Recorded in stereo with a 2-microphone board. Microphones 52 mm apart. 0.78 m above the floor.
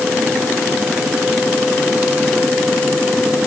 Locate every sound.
Only background noise.